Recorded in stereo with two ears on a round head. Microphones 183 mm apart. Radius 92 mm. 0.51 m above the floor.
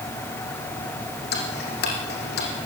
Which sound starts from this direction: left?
Ticking, at 1.3 s.